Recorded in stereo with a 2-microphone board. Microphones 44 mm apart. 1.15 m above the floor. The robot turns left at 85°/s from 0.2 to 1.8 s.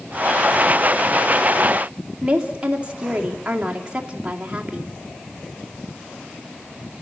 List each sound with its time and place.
2.2 s a woman speaking: 25° right (ahead or behind), 2.5 m